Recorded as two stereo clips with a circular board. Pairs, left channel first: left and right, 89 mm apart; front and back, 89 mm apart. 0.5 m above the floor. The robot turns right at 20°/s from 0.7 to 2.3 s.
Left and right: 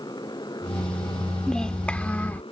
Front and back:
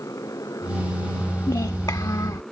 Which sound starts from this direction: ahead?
A child speaking, at 1.5 s.